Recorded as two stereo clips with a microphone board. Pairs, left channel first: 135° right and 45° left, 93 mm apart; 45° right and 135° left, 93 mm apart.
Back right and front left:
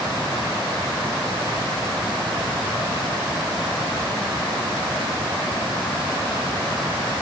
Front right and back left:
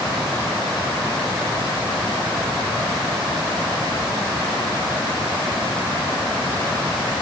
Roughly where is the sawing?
I don't hear sawing.